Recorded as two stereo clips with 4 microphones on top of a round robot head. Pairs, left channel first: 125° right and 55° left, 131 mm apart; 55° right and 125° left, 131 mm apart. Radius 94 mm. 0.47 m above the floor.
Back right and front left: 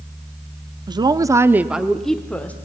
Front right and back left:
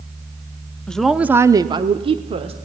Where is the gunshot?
I don't hear a gunshot.